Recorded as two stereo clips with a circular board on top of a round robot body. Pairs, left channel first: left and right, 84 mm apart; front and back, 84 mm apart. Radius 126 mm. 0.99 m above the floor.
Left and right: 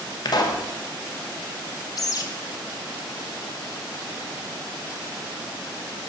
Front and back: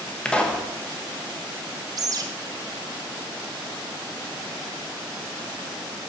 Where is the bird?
135° left, 0.7 m.